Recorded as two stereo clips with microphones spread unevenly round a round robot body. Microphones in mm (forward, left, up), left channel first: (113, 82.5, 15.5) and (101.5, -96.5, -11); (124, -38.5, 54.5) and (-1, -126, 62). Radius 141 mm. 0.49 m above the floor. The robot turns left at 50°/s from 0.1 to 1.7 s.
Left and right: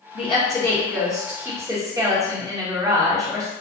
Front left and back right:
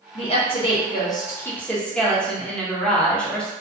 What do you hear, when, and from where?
0.1 s a woman speaking: 35° left, 0.9 m; by 3.5 s 45° right, 0.9 m